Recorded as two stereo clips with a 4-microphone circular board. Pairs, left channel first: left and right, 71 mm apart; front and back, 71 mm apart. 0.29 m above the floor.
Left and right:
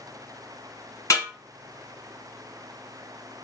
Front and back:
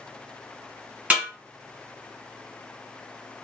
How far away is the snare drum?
About 2.5 m.